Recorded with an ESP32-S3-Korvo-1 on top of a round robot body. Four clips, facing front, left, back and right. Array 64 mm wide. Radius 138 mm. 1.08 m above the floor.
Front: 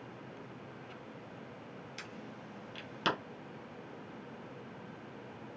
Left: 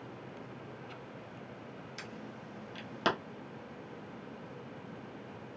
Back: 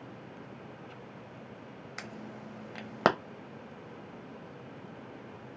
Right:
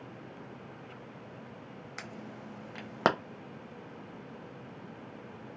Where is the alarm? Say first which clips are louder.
Right 4 dB, back 7 dB; 145° right, 0.5 m.